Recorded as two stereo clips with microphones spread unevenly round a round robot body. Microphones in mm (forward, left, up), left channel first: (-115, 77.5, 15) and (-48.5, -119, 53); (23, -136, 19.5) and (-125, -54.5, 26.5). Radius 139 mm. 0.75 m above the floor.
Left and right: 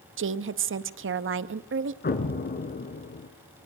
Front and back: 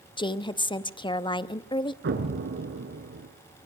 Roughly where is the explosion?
Behind left.